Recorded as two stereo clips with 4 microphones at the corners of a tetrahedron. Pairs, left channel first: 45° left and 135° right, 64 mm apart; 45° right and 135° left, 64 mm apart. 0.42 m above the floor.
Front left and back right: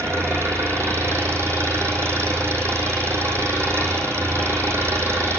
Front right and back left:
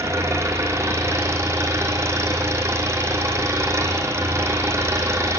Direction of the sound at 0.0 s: Straight behind.